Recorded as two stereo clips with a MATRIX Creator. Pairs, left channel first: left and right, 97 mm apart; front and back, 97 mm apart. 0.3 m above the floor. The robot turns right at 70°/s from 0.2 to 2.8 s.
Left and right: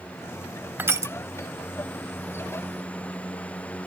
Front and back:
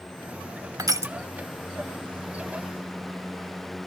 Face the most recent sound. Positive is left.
turn(degrees=-10)